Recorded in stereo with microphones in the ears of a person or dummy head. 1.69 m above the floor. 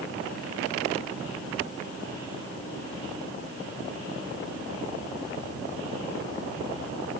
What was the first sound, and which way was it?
Only background noise.